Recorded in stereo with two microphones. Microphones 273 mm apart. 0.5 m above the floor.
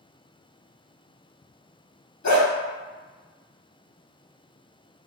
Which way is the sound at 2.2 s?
75° left (ahead or behind).